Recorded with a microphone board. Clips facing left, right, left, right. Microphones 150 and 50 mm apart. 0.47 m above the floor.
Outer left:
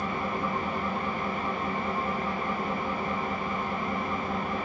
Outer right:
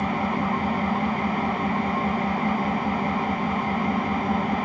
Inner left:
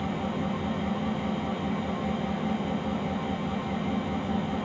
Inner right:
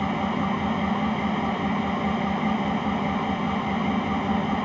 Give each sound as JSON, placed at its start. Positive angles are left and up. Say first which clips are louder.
{"t": 0.0, "sound": "an engine running", "louder": "outer right 6 dB, inner right 5 dB", "side_deg": -80, "distance_m": 0.8}